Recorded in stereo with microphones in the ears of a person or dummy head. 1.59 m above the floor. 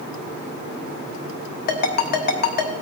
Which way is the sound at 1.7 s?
60° left (ahead or behind).